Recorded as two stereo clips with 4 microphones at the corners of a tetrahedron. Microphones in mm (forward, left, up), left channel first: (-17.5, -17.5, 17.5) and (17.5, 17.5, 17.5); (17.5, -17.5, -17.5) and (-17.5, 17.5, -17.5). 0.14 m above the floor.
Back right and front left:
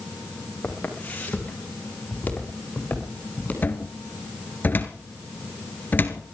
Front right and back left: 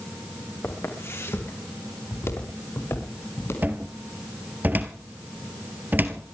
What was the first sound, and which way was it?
Footsteps, 75° right.